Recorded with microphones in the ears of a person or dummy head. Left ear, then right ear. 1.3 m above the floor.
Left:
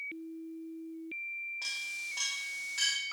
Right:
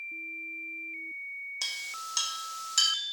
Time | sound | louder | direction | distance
1.6 | a clink | right 5 dB | 80° right | 1.5 m